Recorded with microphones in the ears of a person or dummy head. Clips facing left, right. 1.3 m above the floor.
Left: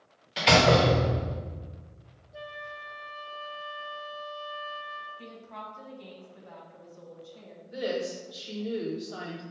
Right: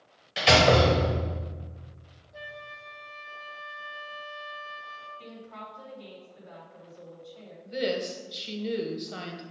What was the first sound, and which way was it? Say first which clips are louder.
A door slam: right 1 dB; 5° right (ahead or behind).